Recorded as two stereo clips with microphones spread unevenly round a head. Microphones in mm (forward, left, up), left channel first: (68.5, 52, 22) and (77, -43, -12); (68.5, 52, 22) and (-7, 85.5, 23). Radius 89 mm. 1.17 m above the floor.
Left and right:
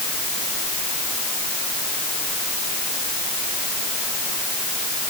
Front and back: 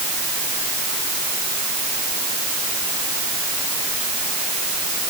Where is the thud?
I don't hear a thud.